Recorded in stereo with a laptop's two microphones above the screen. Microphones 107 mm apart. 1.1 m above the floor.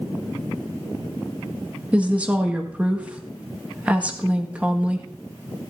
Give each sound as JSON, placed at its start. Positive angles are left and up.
{"t": 1.9, "sound": "a woman speaking", "side_deg": -15, "distance_m": 1.7}